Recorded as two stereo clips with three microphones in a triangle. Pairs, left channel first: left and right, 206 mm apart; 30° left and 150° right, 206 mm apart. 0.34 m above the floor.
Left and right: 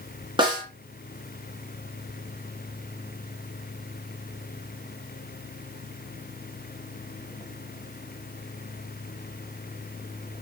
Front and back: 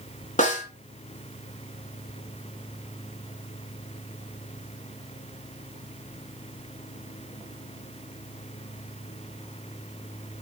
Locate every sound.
0.4 s a snare drum: 25° right, 1.6 m